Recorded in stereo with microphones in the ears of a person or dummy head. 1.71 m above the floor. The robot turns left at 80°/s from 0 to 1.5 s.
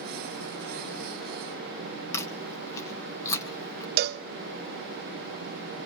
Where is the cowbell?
60° right (ahead or behind), 0.6 m.